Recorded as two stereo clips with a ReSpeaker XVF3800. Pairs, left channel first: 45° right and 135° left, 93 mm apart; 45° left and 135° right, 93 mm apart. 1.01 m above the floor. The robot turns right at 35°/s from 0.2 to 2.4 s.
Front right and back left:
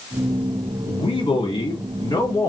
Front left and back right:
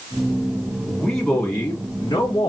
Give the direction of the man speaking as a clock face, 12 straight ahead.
2 o'clock.